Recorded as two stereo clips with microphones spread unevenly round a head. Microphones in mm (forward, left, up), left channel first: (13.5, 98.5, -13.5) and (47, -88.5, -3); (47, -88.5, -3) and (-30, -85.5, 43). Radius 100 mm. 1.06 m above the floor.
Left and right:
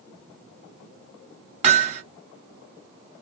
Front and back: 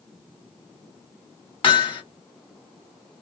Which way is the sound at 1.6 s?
35° right.